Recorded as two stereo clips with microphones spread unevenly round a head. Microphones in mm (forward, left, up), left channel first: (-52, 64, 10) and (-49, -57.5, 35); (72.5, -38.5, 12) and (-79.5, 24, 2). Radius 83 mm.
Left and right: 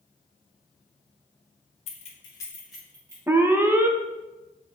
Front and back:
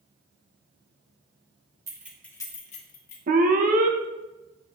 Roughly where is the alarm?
Behind.